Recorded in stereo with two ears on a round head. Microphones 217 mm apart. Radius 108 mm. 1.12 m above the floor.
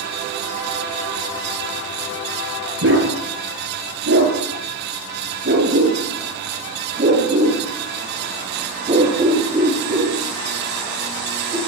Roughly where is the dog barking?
Right.